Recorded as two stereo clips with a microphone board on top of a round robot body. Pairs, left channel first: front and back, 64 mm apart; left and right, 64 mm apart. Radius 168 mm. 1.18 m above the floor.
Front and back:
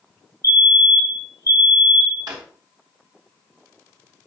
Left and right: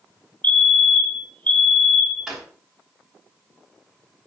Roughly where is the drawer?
Behind.